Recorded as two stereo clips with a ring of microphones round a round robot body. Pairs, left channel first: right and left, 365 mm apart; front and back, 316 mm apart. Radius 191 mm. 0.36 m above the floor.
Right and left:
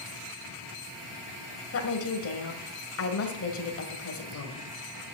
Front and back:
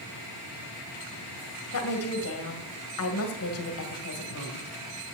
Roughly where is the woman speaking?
Ahead right.